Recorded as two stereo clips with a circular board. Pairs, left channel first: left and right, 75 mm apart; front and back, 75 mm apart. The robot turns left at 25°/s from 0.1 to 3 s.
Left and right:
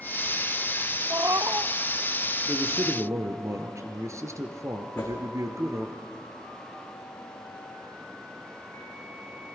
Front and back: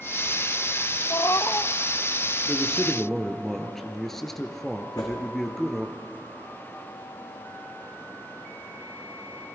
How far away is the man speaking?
About 1.4 m.